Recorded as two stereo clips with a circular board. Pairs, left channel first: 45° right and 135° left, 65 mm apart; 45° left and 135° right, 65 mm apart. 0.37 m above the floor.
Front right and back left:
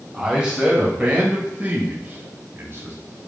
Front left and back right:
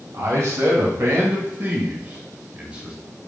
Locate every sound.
0.1 s a man speaking: 150° right, 2.5 m; by 3.0 s 155° left, 1.9 m